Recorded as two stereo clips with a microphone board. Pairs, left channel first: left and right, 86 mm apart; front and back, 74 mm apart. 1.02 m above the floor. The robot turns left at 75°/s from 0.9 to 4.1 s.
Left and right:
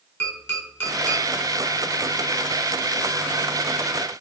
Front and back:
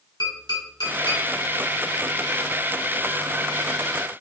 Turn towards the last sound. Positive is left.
turn(degrees=145)